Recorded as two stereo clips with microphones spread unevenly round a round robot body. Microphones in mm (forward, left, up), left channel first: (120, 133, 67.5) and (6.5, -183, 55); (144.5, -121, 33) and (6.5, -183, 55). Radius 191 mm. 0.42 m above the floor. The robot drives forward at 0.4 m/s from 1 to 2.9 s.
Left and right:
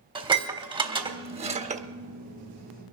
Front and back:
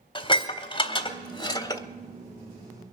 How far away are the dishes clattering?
About 1.6 m.